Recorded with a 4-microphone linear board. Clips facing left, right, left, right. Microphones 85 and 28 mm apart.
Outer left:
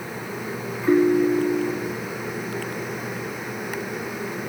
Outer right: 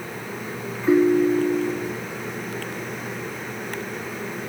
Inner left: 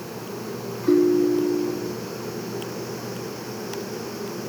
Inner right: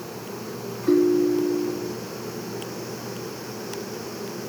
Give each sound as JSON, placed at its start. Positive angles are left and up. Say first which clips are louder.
{"t": 0.9, "sound": "a ringtone", "louder": "outer right 1 dB, inner left 1 dB", "side_deg": -5}